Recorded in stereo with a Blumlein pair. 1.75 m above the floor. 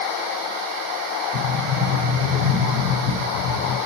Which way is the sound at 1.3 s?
15° left.